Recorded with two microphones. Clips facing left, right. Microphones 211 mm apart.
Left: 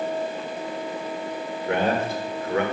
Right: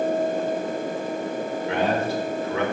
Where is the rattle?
No rattle in this recording.